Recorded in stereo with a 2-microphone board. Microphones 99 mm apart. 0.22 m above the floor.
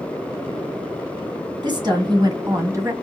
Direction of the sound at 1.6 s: 50° right (ahead or behind).